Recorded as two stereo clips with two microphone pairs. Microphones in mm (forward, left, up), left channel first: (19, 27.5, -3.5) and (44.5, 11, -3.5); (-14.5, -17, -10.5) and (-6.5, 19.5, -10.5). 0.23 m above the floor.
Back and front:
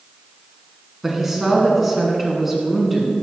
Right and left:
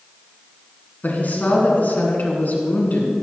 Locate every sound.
1.0 s a woman speaking: 120° right, 2.5 m